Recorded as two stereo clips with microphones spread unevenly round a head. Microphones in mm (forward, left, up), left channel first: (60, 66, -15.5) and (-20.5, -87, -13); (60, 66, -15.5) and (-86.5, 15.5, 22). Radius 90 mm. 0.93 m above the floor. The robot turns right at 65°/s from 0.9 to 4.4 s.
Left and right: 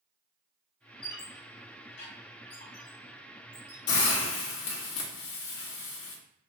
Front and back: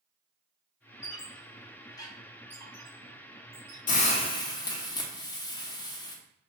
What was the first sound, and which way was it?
A squeak, 25° left.